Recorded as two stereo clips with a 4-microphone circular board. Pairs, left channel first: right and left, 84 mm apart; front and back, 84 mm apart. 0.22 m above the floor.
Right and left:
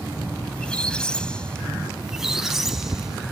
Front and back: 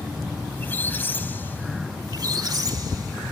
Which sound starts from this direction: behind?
A squeak, at 2.0 s.